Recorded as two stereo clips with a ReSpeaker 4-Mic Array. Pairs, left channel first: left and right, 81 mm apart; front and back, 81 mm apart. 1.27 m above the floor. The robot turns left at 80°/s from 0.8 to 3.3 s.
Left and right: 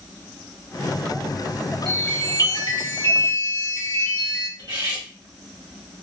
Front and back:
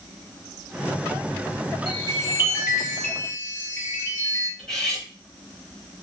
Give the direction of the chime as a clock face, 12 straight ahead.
6 o'clock.